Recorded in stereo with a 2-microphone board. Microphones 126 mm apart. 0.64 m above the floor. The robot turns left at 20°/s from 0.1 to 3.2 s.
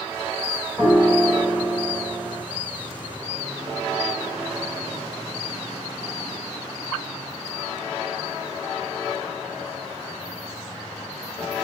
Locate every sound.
0.8 s a piano: 5° right, 1.5 m; by 2.4 s 40° right, 1.5 m